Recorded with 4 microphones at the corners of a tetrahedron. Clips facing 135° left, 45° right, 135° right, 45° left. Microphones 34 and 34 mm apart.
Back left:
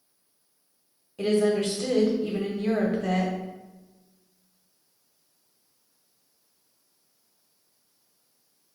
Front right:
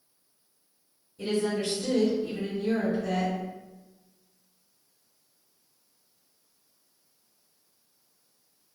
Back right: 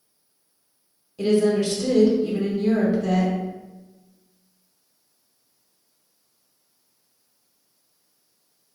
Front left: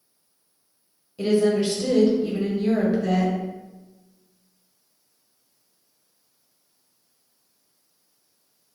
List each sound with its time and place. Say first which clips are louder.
1.2 s a woman speaking: back left 5 dB, back right 1 dB; 130° left, 0.8 m